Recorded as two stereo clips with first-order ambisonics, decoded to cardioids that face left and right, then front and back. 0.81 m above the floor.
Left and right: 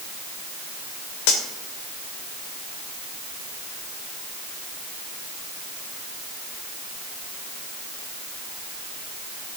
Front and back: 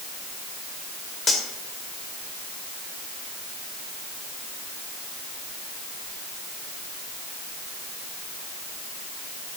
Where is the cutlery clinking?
75° left, 1.8 m.